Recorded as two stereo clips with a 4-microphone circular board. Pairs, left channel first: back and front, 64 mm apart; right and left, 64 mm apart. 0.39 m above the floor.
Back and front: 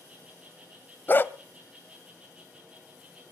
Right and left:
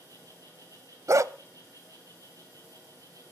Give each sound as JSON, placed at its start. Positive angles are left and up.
{"t": 0.0, "sound": "an insect", "azimuth_deg": 70, "distance_m": 10.0}
{"t": 1.1, "sound": "a dog barking", "azimuth_deg": 125, "distance_m": 0.6}